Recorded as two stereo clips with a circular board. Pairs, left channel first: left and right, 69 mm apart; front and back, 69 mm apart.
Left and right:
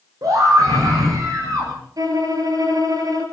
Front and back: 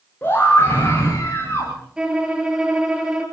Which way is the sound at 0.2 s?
60° right.